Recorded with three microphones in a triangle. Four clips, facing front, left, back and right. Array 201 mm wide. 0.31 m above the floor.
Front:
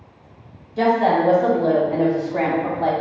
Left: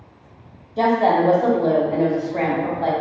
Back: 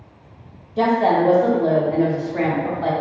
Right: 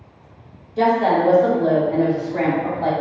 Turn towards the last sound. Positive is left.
turn(degrees=5)